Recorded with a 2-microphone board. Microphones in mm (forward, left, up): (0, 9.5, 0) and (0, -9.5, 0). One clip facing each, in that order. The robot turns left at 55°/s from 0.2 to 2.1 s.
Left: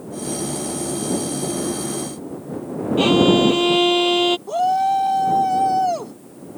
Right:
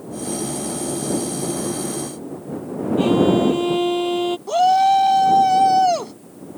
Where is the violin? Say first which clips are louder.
Left 2 dB; 60° left (ahead or behind).